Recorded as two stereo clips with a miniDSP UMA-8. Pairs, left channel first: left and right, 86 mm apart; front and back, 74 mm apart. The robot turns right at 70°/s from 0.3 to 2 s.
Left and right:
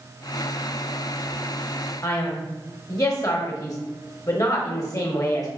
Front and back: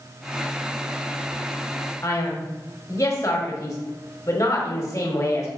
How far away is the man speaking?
About 1.1 m.